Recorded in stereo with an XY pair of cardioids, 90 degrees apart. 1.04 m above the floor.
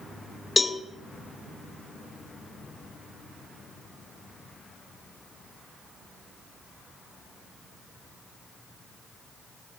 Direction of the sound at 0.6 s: 30° left.